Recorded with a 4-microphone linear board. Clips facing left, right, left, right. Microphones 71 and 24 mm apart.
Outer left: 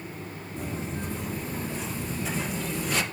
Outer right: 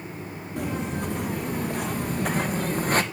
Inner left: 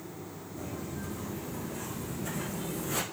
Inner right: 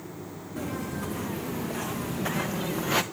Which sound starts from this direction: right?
Footsteps, at 0.6 s.